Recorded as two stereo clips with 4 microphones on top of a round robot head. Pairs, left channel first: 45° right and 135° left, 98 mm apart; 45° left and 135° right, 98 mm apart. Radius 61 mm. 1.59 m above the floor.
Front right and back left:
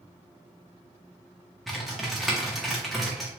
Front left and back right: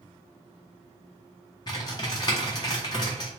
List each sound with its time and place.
1.7 s typing on a keyboard: 50° left, 0.5 m